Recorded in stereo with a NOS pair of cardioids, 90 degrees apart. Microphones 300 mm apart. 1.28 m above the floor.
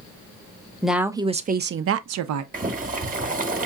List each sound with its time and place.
0.8 s a woman speaking: straight ahead, 0.8 m; by 2.4 s 75° right, 0.7 m
2.5 s boiling: 30° right, 1.2 m